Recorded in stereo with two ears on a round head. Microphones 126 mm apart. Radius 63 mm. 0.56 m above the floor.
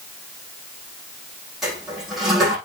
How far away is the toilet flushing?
About 8 m.